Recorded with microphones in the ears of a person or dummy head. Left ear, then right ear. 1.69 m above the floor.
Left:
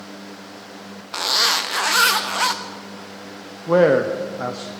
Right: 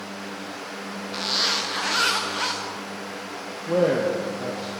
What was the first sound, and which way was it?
A zipper, 25° left (ahead or behind).